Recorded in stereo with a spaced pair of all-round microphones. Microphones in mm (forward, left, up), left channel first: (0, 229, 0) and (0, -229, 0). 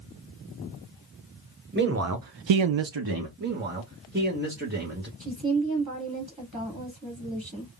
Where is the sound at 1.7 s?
20° right (ahead or behind), 0.8 m; by 3.3 s 50° right (ahead or behind), 0.8 m.